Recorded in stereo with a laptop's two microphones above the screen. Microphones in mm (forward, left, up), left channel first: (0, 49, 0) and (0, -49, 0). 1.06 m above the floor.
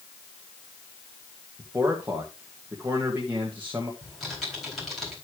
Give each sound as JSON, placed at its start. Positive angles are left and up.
{"t": 1.6, "sound": "a man speaking", "side_deg": -20, "distance_m": 1.5}
{"t": 4.0, "sound": "typing on a keyboard", "side_deg": 0, "distance_m": 4.0}